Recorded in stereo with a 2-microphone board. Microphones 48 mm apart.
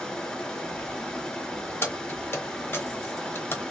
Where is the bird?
No bird in this recording.